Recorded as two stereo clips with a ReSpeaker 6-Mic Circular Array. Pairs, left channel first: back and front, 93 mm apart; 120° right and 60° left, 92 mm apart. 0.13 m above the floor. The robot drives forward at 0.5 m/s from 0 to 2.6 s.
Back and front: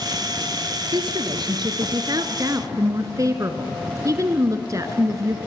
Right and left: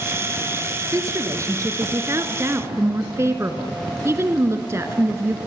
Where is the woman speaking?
10° left, 2 m; by 5.4 s 20° left, 1.5 m.